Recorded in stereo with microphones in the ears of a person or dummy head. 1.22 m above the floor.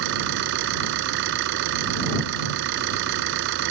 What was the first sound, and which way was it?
An engine running, 70° right (ahead or behind).